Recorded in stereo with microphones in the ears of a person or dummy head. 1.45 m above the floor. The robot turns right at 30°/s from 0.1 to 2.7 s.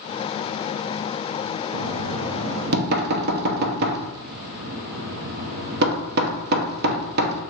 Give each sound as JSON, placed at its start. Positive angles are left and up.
{"t": 1.7, "sound": "knocking", "side_deg": -80, "distance_m": 0.6}